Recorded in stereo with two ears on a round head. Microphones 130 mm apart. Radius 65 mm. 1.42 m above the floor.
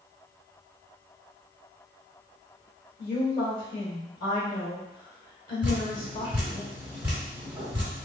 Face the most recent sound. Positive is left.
turn(degrees=-10)  # may be behind; listen again after turning